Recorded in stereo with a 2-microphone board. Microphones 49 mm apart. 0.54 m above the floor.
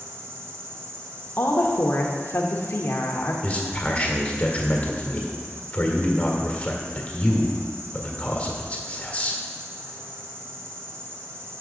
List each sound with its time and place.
0.0 s an insect: 65° right (ahead or behind), 1.4 m
1.4 s a woman speaking: 50° left (ahead or behind), 1.2 m
3.4 s a man speaking: 30° left (ahead or behind), 1.7 m